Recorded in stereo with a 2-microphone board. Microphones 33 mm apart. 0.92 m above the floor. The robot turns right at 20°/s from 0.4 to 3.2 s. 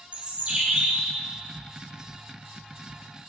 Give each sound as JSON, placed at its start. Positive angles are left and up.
{"t": 0.1, "sound": "a bird", "side_deg": -35, "distance_m": 2.5}